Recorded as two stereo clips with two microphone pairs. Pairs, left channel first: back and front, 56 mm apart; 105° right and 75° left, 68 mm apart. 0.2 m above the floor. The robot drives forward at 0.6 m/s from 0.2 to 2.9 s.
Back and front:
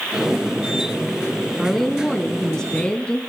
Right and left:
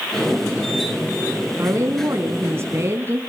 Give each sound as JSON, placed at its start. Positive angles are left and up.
{"t": 1.6, "sound": "a woman speaking", "azimuth_deg": 85, "distance_m": 2.0}